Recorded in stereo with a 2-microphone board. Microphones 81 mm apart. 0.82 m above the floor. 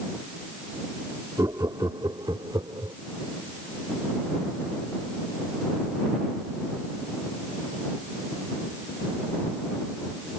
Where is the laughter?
50° right (ahead or behind); by 3.0 s 70° right (ahead or behind).